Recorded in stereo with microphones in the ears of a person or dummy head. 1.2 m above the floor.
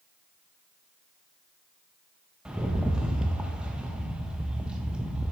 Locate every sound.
2.5 s a rattle: 5° right (ahead or behind), 0.6 m